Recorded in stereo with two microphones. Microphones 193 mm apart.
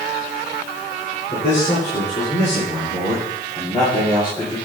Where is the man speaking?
35° left (ahead or behind), 7 m; by 4.6 s 25° left (ahead or behind), 9 m.